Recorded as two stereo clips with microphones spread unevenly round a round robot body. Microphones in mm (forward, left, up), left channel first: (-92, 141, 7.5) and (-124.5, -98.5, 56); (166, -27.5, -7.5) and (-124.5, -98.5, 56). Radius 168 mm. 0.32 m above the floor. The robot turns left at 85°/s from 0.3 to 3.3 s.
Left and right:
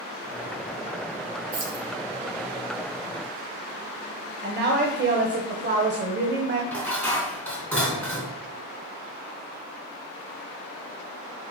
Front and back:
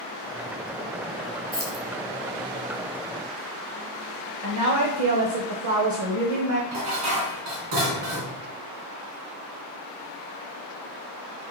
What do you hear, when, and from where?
1.5 s keys jangling: 75° right, 4 m; by 1.9 s 100° right, 4 m
4.4 s a woman speaking: 140° right, 1.4 m
6.7 s dishes clattering: 165° left, 2.5 m